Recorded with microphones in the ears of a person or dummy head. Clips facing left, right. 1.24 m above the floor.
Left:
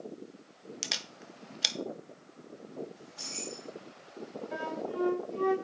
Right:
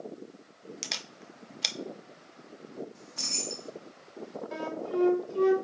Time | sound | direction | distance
0.8 | a camera shutter | centre (ahead or behind) | 0.5 m
3.0 | keys jangling | 65° right (ahead or behind) | 1.3 m
4.5 | a flute | 60° right (ahead or behind) | 1.5 m